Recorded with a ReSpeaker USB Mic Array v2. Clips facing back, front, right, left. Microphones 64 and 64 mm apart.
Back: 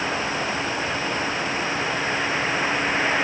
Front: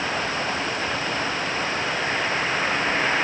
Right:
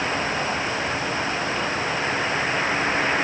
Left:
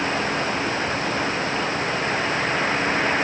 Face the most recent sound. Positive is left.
No sound to turn to.